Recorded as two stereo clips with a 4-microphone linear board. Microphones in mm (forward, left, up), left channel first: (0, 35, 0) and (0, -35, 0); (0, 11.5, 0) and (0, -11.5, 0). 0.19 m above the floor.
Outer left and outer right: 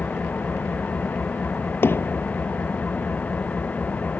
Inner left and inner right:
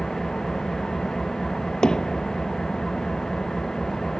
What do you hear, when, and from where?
0.0 s an engine running: 25° left (ahead or behind)
1.8 s hammering: 35° left (ahead or behind)